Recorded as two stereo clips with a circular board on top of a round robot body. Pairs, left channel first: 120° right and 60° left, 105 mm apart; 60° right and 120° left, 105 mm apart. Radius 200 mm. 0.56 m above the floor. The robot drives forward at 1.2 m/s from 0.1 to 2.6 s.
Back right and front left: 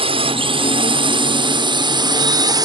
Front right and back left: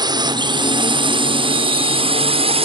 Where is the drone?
75° left; by 2.7 s 105° left.